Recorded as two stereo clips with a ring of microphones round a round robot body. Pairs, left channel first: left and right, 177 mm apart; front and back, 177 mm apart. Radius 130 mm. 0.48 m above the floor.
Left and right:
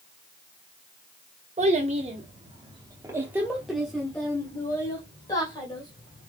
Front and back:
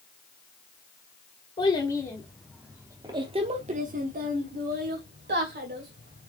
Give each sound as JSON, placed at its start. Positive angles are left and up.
{"t": 1.6, "sound": "a child speaking", "azimuth_deg": -55, "distance_m": 1.1}